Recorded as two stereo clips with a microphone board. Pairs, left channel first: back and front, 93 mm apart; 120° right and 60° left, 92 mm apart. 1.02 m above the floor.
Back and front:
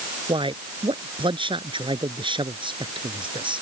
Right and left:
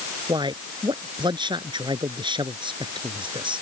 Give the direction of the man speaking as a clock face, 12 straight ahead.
11 o'clock.